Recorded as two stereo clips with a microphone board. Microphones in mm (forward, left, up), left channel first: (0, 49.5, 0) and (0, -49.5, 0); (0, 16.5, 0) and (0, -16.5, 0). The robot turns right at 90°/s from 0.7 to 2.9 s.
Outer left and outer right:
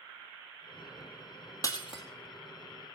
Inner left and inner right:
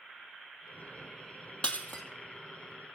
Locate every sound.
1.6 s breaking glass: 35° left (ahead or behind), 2.5 m; by 2.0 s 70° left (ahead or behind), 2.5 m